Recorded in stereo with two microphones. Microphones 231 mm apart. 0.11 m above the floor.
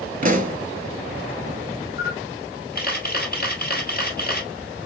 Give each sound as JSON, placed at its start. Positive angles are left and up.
{"t": 0.2, "sound": "a pop", "side_deg": -35, "distance_m": 0.7}
{"t": 2.0, "sound": "a camera shutter", "side_deg": 40, "distance_m": 1.6}